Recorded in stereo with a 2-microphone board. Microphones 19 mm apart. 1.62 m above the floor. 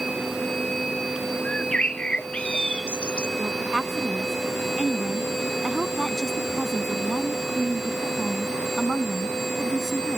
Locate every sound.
1.4 s a bird: 75° left (ahead or behind)
3.4 s a woman speaking: 15° left (ahead or behind)